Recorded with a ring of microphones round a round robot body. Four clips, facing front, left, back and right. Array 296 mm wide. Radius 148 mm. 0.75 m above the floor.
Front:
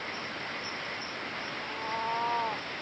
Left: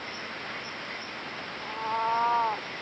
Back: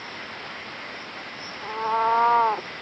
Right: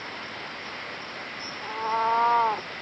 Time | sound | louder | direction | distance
1.6 | a cat meowing | right 4 dB, back 12 dB | 165° right | ?